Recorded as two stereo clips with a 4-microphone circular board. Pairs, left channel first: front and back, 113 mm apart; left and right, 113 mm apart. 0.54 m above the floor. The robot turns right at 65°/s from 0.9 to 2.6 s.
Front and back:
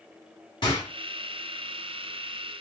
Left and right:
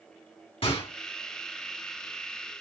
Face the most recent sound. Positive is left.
turn(degrees=160)